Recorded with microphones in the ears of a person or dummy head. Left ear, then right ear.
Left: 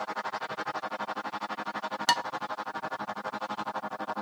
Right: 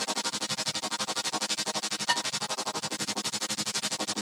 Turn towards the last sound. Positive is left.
turn(degrees=80)